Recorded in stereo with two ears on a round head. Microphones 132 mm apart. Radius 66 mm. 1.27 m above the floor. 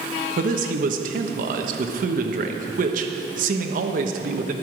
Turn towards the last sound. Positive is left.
turn(degrees=-60)  # may be behind; listen again after turning